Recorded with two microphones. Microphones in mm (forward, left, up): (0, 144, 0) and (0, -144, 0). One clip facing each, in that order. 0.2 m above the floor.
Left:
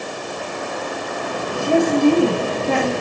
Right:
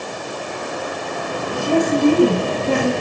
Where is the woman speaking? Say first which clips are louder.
Even; 45° right (ahead or behind), 8 m.